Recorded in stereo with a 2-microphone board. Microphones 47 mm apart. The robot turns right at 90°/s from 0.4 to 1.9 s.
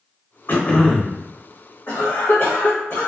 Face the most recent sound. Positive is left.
turn(degrees=50)  # may be behind; listen again after turning